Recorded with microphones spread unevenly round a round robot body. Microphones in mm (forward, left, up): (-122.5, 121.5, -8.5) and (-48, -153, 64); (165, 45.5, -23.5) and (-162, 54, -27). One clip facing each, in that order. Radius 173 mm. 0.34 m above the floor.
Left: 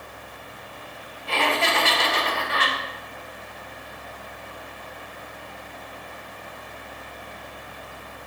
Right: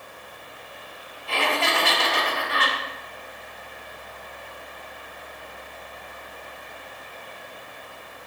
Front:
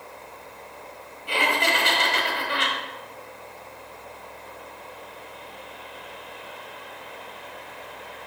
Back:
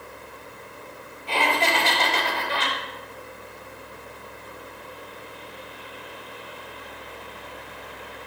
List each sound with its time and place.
1.3 s laughter: 65° left, 1.6 m